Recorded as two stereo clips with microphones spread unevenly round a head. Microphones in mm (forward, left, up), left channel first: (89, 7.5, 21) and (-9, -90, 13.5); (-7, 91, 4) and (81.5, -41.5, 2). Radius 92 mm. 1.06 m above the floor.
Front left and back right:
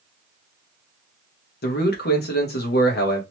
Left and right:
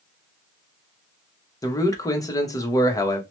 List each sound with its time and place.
1.6 s a man speaking: 55° left, 1.0 m